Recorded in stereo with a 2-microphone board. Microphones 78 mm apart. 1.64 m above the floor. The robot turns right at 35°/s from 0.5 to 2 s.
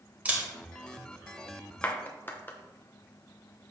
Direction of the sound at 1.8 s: 25° left (ahead or behind).